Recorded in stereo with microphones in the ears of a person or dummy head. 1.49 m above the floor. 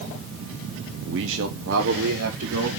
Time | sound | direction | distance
1.1 | a man speaking | 65° right (ahead or behind) | 0.7 m